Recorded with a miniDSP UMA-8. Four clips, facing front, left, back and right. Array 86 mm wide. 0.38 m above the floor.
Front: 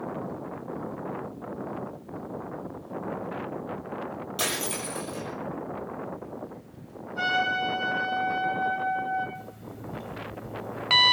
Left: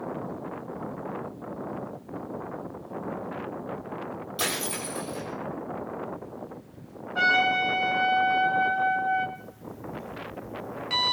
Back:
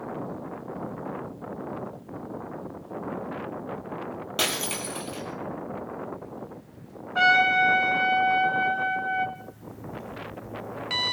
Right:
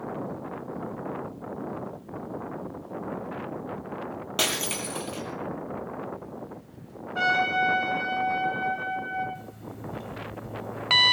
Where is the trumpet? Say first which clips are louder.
Left 1 dB, back 6 dB; 175° left, 4 m.